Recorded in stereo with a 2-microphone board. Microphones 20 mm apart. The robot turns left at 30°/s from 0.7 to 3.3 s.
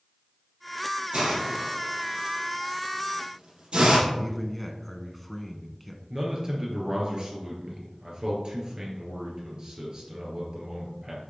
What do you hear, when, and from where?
1.1 s a hiss: 45° right (ahead or behind), 4.5 m; by 4.0 s 60° right (ahead or behind), 4.5 m
4.1 s a man speaking: 5° left (ahead or behind), 1.1 m
6.1 s a man speaking: 40° right (ahead or behind), 3 m